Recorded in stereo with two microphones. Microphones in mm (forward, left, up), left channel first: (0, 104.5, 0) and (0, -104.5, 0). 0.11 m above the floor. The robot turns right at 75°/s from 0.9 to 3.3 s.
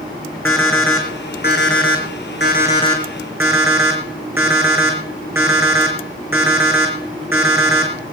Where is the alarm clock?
10° left, 3.5 m; by 7.9 s 170° right, 3.5 m.